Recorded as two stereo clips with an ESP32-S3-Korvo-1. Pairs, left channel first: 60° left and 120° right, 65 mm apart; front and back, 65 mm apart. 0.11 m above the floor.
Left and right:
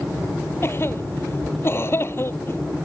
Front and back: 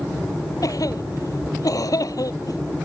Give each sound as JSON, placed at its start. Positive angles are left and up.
{"t": 0.6, "sound": "a cough", "azimuth_deg": 10}